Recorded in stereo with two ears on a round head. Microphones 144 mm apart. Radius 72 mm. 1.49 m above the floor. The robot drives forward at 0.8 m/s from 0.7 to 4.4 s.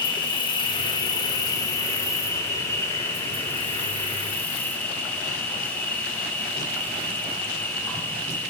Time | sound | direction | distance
0.0 | an insect | 30° left (ahead or behind) | 2.5 m